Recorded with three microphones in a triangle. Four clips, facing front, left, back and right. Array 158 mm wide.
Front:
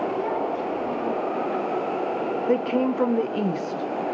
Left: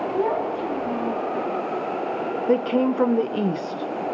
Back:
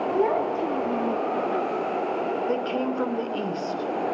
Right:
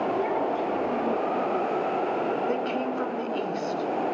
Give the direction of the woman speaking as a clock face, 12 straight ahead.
10 o'clock.